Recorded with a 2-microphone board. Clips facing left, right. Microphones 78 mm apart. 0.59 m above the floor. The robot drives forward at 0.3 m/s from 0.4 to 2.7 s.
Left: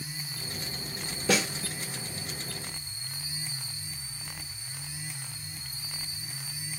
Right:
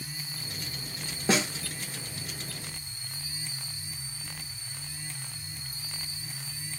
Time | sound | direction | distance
1.3 | a snare drum | 25° right (ahead or behind) | 1.5 m